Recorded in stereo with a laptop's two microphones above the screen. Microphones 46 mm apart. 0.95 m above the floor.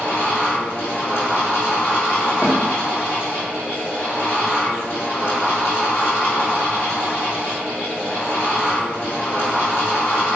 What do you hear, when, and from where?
0.0 s a fan: 65° left (ahead or behind), 1.2 m
2.4 s a snare drum: 65° left (ahead or behind), 0.8 m